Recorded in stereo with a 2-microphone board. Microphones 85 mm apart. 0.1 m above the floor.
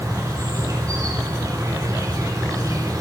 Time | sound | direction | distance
0.0 | an insect | 40° right (ahead or behind) | 4.5 m